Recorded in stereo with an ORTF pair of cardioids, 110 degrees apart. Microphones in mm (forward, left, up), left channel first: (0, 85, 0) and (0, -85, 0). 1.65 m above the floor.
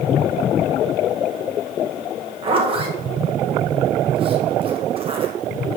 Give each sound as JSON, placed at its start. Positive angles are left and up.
{"t": 2.4, "sound": "a zipper", "azimuth_deg": -35, "distance_m": 2.0}